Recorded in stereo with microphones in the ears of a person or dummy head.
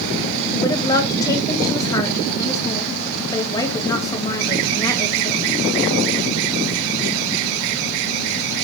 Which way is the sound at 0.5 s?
20° left (ahead or behind).